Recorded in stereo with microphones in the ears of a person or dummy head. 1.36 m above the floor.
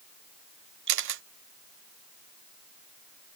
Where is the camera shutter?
55° right (ahead or behind).